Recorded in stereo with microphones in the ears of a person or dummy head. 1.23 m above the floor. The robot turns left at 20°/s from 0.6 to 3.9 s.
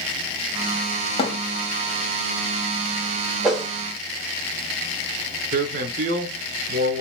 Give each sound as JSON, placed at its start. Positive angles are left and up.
{"t": 1.2, "sound": "a thud", "side_deg": 30, "distance_m": 0.9}
{"t": 3.4, "sound": "a whoosh", "side_deg": 0, "distance_m": 0.7}
{"t": 5.5, "sound": "a man speaking", "side_deg": -50, "distance_m": 0.8}